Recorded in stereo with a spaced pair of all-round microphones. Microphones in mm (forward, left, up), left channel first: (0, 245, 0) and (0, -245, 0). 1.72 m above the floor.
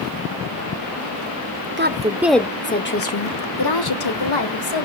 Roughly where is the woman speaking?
Right.